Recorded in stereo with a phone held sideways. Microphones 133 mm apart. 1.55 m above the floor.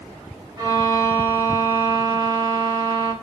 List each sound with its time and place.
0.6 s a violin: 25° right (ahead or behind), 0.7 m